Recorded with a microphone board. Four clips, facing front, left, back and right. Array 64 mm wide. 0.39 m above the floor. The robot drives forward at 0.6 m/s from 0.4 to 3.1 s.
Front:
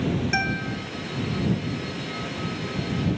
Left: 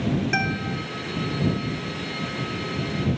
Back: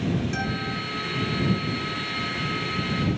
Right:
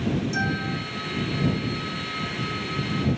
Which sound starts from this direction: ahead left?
A guitar, at 0.3 s.